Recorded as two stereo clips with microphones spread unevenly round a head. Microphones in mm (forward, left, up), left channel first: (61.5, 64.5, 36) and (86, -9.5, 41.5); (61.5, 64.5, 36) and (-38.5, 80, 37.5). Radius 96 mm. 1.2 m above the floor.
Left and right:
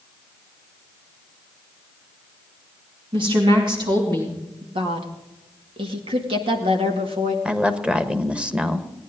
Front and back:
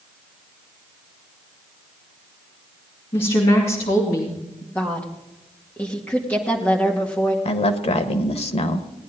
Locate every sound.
3.1 s a woman speaking: 60° right, 2.5 m; by 4.7 s 40° right, 2.5 m
4.8 s a woman speaking: 85° right, 1.8 m
7.5 s a woman speaking: 10° left, 1.5 m